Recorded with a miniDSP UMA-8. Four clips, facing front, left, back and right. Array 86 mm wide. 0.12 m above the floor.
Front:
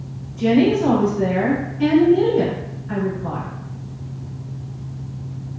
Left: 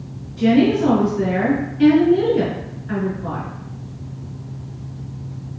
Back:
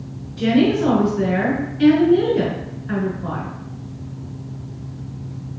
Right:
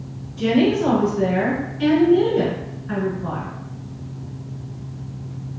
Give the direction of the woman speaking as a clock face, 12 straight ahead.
6 o'clock.